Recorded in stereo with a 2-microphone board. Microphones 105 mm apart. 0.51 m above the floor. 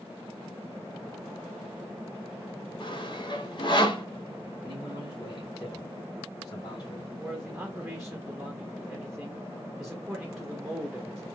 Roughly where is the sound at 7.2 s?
Centre.